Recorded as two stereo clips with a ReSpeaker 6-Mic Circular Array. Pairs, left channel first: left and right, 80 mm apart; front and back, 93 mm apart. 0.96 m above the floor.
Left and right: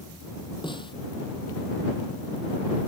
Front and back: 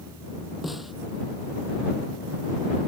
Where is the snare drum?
90° left.